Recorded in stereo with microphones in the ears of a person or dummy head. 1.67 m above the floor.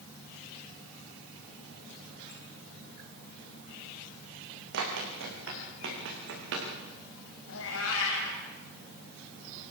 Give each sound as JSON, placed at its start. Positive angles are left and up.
{"t": 4.7, "sound": "running footsteps", "side_deg": -55, "distance_m": 8.0}
{"t": 7.5, "sound": "a cat meowing", "side_deg": 80, "distance_m": 5.5}